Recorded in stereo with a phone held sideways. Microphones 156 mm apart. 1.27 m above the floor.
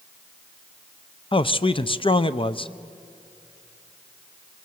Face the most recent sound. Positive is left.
turn(degrees=35)  # may be behind; listen again after turning